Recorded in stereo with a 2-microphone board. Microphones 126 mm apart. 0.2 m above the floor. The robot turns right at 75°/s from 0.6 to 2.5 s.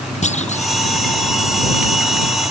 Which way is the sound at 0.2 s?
65° left (ahead or behind).